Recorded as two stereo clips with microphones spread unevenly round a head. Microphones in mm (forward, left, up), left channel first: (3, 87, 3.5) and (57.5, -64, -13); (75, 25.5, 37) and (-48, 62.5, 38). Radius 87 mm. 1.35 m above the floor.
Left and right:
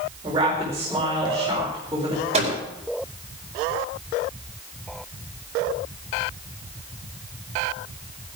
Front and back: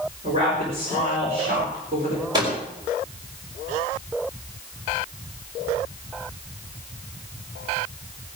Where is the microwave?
130° right, 4.5 m.